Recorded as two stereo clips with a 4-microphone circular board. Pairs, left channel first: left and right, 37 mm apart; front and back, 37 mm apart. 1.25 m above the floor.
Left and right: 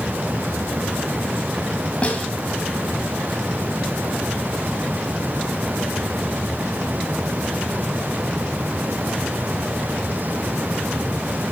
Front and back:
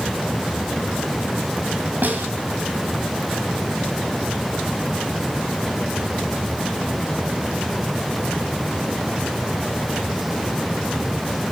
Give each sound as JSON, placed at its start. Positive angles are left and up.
{"t": 2.0, "sound": "a snare drum", "azimuth_deg": 145, "distance_m": 3.5}